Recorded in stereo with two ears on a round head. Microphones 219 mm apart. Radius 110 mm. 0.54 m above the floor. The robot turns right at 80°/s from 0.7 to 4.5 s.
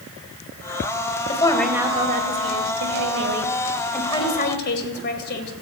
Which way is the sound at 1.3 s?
150° left.